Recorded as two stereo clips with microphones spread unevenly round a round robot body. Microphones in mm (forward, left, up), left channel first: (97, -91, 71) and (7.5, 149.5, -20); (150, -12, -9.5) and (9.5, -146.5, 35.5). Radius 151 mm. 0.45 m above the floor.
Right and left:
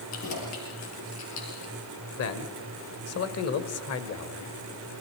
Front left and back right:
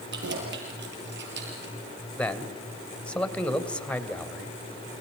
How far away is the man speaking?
About 2.5 m.